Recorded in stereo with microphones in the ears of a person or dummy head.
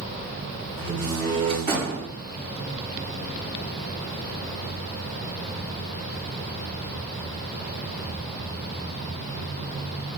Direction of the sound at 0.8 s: 40° right (ahead or behind).